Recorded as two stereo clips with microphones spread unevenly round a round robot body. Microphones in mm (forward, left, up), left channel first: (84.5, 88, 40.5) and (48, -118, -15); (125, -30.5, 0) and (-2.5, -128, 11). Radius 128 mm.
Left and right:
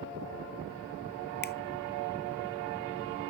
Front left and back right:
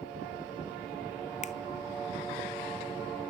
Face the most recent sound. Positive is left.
turn(degrees=35)